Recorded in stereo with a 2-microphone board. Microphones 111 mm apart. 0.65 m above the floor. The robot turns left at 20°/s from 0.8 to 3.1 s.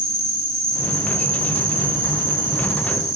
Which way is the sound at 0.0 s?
100° right.